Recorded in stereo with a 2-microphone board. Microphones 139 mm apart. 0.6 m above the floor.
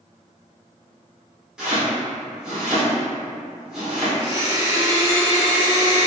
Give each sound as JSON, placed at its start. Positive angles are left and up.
{"t": 1.6, "sound": "chopping", "side_deg": -5, "distance_m": 1.3}
{"t": 4.2, "sound": "a blender", "side_deg": -25, "distance_m": 1.4}